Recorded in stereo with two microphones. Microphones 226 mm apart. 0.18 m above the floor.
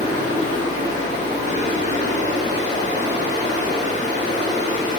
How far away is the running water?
About 1.3 m.